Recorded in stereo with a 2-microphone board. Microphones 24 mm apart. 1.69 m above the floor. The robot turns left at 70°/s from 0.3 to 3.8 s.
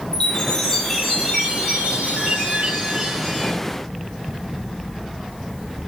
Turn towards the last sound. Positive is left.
turn(degrees=150)